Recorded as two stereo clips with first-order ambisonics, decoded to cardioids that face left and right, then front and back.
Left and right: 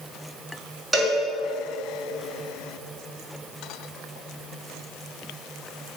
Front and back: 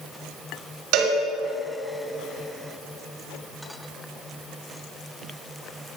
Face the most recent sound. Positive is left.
turn(degrees=-170)